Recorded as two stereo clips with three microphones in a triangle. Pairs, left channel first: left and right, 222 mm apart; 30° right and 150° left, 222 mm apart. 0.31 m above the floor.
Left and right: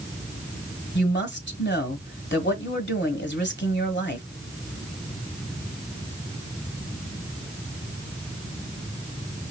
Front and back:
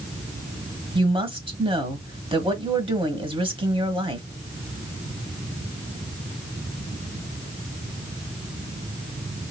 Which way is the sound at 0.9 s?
90° left.